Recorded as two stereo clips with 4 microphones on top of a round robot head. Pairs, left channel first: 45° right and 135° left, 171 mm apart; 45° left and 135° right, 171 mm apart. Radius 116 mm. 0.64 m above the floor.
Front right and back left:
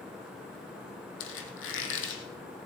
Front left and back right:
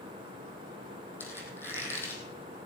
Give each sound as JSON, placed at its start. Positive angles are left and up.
{"t": 1.2, "sound": "a squeak", "azimuth_deg": -35, "distance_m": 2.0}